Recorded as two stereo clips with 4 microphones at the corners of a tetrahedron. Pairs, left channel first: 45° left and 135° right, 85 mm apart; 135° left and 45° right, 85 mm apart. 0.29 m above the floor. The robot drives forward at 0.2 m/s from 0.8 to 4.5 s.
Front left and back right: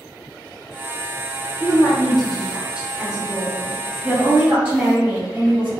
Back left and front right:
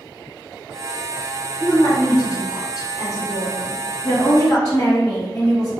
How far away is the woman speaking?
About 1.3 m.